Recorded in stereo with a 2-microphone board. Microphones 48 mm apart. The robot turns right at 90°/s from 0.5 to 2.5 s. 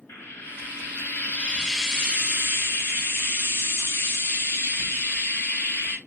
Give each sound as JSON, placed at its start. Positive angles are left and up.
{"t": 0.1, "sound": "frying", "azimuth_deg": 65, "distance_m": 2.5}